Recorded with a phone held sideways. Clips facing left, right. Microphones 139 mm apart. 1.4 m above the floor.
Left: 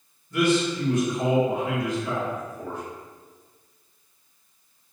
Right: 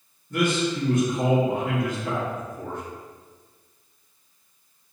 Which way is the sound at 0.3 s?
60° right (ahead or behind).